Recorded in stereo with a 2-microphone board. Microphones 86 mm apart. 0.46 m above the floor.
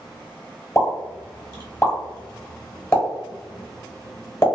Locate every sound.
0.8 s a pop: 30° left (ahead or behind), 1.2 m